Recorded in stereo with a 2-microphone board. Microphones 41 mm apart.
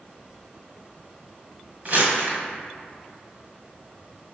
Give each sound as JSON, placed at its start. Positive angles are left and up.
{"t": 1.9, "sound": "crumpling", "side_deg": -40, "distance_m": 1.9}